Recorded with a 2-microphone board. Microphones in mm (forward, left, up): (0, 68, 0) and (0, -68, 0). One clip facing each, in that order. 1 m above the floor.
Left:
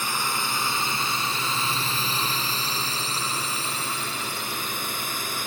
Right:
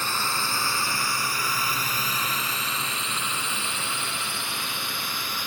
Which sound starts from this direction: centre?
A drone, at 0.0 s.